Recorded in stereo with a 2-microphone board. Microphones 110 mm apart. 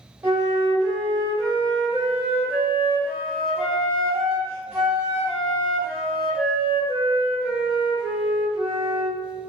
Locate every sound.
0.2 s a flute: 20° right (ahead or behind), 1.7 m